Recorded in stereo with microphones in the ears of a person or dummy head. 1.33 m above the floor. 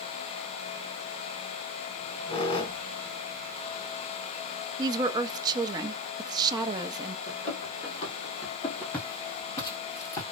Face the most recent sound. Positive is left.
turn(degrees=25)  # may be behind; listen again after turning